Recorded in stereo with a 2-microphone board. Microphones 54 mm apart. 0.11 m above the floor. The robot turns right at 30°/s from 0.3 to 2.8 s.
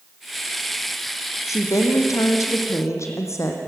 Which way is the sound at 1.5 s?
75° left.